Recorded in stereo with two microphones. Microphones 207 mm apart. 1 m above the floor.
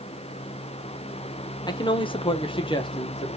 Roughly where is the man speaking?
Left.